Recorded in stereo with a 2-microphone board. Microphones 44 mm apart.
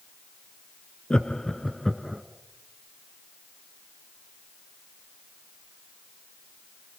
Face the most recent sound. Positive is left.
turn(degrees=-15)  # may be behind; listen again after turning